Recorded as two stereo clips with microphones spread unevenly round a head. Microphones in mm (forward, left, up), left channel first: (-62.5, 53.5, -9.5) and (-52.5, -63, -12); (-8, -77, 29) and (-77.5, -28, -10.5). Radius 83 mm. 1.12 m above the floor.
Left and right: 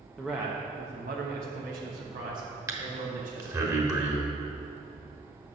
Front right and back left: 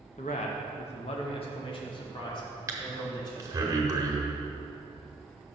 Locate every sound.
0.2 s a man speaking: 5° left, 0.7 m; by 3.7 s 80° right, 2 m
2.7 s breathing: 145° right, 1.2 m